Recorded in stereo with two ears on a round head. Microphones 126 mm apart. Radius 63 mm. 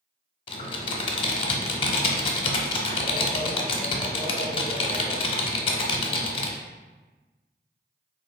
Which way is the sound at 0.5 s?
40° left (ahead or behind).